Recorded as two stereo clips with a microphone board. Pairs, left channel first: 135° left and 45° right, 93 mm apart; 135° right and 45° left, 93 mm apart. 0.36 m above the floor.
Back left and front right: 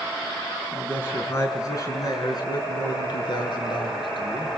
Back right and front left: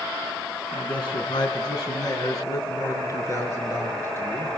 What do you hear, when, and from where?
0.7 s a man speaking: 160° right, 3 m; by 4.5 s 160° left, 5 m